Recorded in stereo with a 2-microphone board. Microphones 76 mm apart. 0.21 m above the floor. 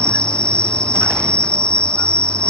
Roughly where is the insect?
Centre.